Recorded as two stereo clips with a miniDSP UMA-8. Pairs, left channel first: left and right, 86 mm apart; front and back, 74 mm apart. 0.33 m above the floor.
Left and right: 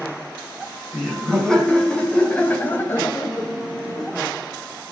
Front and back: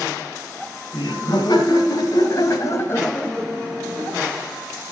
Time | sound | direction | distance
0.9 | laughter | 5° left | 3 m